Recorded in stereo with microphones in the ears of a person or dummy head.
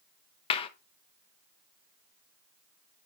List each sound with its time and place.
0.5 s a clap: 45° left (ahead or behind), 0.9 m